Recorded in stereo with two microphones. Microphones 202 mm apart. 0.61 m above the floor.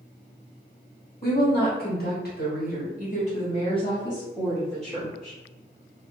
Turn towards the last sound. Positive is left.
turn(degrees=0)  # may be behind; listen again after turning